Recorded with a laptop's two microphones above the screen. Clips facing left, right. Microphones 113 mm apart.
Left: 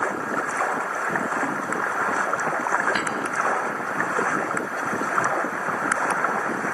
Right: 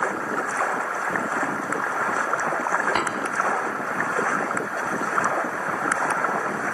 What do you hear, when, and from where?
3.0 s tapping: 40° right (ahead or behind), 3.5 m